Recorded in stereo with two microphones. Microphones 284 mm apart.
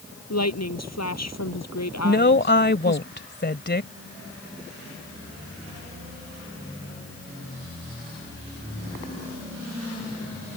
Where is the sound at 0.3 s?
65° left (ahead or behind).